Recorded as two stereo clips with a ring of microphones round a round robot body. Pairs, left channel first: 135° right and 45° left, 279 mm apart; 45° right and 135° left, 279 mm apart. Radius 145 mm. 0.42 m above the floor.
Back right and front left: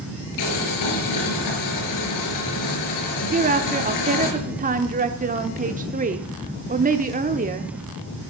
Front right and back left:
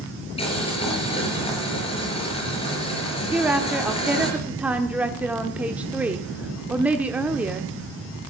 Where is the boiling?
115° right, 5 m.